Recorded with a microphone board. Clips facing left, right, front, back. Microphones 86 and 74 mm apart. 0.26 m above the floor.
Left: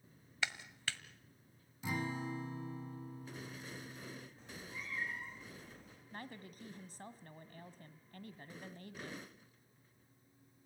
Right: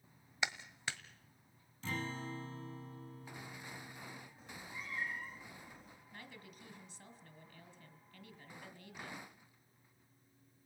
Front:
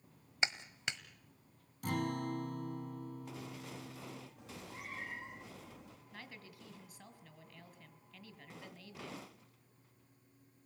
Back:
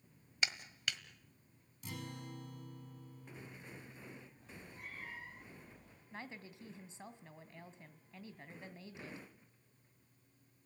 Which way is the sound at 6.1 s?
120° left.